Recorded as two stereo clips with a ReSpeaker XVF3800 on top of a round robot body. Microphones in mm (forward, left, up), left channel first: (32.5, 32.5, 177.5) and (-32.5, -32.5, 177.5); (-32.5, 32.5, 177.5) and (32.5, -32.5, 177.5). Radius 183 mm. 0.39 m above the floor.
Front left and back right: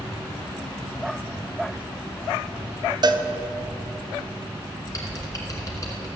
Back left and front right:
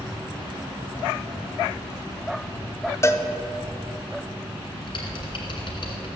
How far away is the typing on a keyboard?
About 2 m.